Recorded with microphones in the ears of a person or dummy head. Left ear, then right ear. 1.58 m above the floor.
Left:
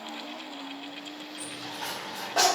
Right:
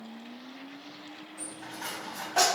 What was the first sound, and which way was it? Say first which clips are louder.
A dropped coin: left 3 dB; 5° right (ahead or behind).